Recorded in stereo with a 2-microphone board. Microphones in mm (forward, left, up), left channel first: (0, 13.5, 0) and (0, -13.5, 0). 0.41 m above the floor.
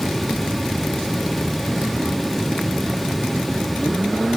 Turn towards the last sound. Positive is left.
No sound to turn to.